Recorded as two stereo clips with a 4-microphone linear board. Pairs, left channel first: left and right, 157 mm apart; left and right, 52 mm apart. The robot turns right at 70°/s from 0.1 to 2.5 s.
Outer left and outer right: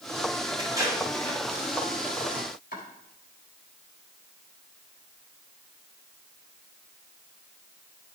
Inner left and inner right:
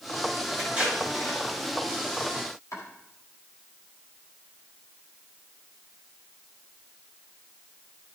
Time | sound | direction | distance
0.6 | tape being pulled | 35° right (ahead or behind) | 5.5 m
2.7 | chopping | 70° left (ahead or behind) | 5 m